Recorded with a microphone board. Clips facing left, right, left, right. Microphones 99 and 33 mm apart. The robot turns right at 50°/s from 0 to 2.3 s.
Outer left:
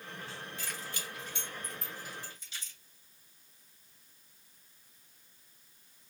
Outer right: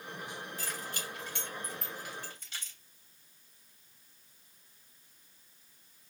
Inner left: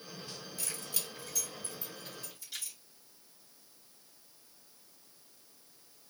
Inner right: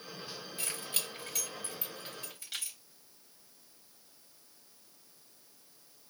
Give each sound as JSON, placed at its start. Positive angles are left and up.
{"t": 0.6, "sound": "keys jangling", "side_deg": -35, "distance_m": 2.5}